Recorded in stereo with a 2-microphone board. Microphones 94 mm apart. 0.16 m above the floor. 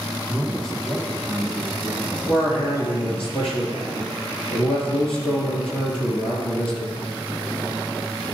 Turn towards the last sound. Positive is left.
turn(degrees=60)  # may be behind; listen again after turning